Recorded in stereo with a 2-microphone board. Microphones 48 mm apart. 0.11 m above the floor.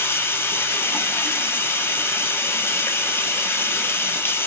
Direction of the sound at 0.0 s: 65° left (ahead or behind).